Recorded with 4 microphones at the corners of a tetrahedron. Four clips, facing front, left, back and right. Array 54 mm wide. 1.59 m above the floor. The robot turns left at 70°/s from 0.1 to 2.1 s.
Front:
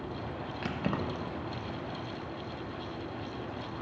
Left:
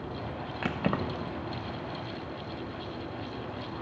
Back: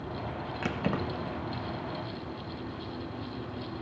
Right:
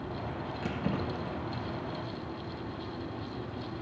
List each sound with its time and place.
0.6 s keys jangling: 110° left, 1.0 m; by 1.3 s 60° left, 1.0 m